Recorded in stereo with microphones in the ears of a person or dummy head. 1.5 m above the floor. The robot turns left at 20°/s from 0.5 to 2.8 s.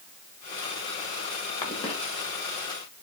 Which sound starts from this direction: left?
A cough, at 1.6 s.